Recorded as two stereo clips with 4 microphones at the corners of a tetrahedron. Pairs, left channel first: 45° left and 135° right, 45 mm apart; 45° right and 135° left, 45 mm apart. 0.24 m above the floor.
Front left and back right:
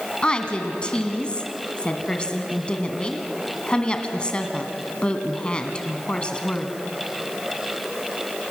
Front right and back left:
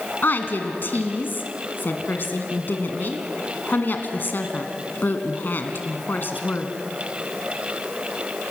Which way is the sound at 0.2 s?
20° right.